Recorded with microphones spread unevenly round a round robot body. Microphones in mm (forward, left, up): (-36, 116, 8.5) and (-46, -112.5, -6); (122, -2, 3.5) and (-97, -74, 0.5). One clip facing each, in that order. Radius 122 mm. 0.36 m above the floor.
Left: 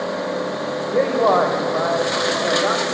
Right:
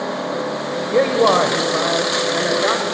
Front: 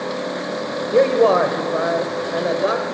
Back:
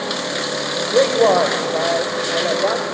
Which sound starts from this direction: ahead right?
A man speaking, at 0.9 s.